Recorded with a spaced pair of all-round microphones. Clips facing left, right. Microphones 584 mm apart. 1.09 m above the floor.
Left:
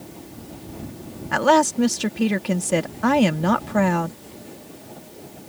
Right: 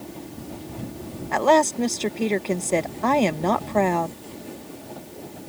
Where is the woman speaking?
40° left (ahead or behind).